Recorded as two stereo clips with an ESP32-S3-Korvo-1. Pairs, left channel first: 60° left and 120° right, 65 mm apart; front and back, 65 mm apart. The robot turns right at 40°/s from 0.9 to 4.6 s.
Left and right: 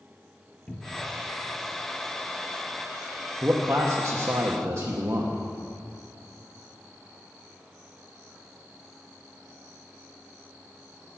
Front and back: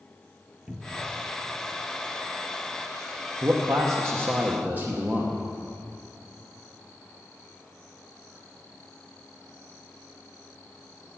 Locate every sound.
0.7 s a cupboard door: 105° left, 0.7 m; by 1.2 s 115° left, 0.7 m
3.4 s a man speaking: 170° right, 0.8 m; by 5.4 s 120° right, 0.8 m